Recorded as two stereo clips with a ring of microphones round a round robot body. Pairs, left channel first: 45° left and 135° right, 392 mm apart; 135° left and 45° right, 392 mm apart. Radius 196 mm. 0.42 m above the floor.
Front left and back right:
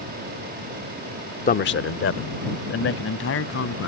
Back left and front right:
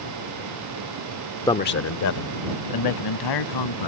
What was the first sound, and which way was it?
A man speaking, 70° left.